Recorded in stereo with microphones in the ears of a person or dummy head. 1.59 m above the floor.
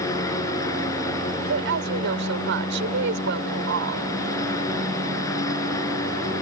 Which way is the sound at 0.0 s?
20° left (ahead or behind).